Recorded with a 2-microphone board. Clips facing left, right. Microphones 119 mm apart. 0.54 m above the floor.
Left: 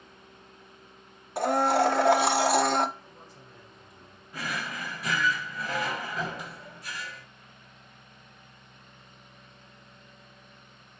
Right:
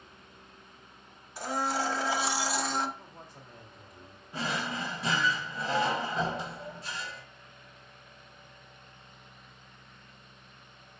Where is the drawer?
25° right (ahead or behind), 0.6 m.